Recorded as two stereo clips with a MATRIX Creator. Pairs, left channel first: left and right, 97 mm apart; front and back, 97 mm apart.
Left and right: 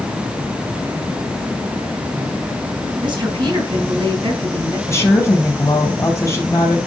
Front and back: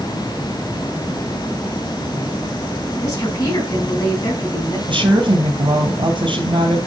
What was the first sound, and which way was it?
A woman speaking, 50° right.